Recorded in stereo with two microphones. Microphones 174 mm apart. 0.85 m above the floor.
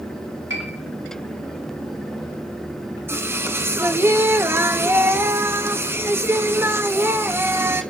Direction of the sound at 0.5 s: 85° right.